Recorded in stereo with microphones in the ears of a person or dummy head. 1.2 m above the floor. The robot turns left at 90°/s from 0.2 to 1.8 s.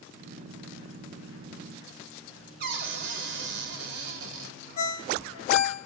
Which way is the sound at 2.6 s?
60° right (ahead or behind).